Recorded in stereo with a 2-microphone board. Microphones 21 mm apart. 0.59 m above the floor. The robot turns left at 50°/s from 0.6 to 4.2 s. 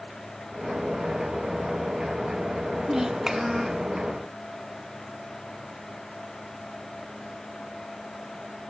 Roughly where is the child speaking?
Behind right.